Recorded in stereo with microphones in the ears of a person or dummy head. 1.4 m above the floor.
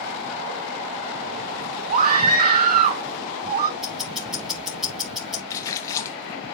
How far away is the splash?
About 0.9 m.